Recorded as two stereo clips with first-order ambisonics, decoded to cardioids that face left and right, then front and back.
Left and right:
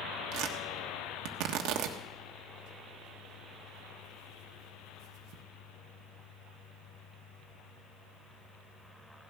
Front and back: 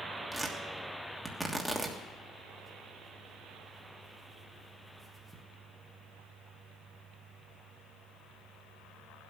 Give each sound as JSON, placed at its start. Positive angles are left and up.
{"t": 0.3, "sound": "tearing paper", "azimuth_deg": -95, "distance_m": 1.4}